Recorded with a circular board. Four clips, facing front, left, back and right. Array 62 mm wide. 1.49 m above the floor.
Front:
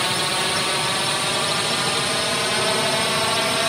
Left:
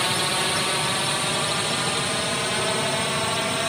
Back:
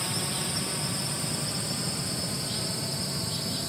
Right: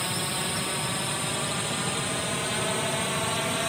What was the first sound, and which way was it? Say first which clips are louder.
A drone: left 7 dB, front 11 dB; 35° left.